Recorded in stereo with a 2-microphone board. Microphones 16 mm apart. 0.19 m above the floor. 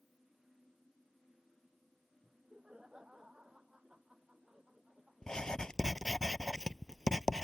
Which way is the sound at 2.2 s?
70° right (ahead or behind).